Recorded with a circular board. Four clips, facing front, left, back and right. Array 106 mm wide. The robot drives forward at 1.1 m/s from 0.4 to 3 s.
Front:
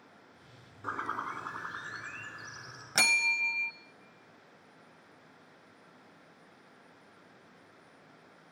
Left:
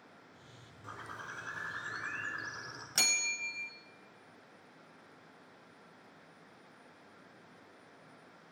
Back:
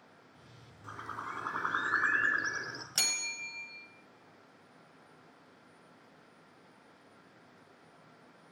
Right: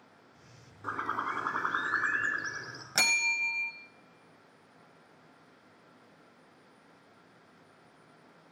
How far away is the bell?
About 1.2 m.